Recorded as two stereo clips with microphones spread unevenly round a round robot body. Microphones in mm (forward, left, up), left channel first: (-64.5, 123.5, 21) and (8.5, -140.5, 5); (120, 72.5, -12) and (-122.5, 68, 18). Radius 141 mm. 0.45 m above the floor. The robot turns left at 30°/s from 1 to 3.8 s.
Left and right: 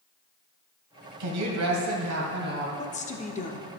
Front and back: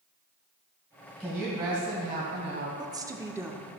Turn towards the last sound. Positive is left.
turn(degrees=90)